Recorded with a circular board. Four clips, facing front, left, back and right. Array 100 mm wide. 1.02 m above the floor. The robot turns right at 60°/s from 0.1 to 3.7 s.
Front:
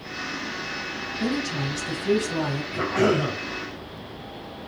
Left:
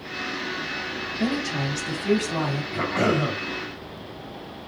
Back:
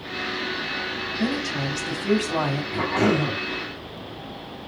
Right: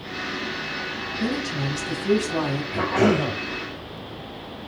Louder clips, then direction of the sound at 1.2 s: Left 1 dB, even; 130° left.